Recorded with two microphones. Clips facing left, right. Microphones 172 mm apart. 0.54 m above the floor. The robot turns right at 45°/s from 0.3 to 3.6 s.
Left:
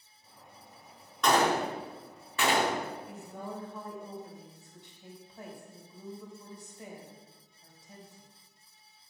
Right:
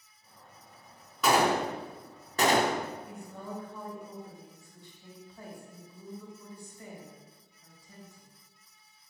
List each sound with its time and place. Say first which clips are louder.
1.2 s a gunshot: right 1 dB; 5° right (ahead or behind), 0.7 m; by 2.9 s 45° right (ahead or behind), 0.7 m
3.1 s a woman speaking: even; 5° right (ahead or behind), 2 m; by 8.3 s 20° left (ahead or behind), 2 m